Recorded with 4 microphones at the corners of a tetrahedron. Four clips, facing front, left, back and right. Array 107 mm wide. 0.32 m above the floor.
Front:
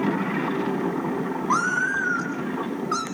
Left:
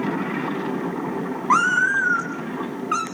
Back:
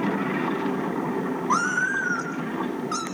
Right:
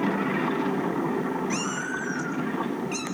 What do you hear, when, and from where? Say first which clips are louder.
1.5 s a cat meowing: left 11 dB, front 1 dB; 90° left, 4.5 m; by 3.0 s 70° left, 4 m